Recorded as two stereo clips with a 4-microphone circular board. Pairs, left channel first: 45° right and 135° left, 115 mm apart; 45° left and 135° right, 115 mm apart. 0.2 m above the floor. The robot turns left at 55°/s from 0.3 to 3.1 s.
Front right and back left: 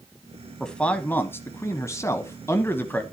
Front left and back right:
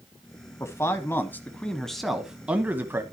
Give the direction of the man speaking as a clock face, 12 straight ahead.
11 o'clock.